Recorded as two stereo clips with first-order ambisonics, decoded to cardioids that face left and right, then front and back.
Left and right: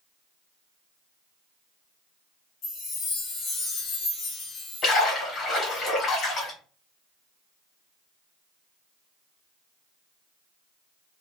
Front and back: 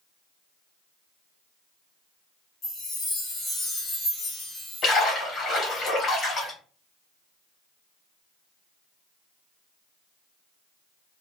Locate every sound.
2.6 s a chime: 55° left, 1.7 m
4.8 s a splash: 50° left, 1.5 m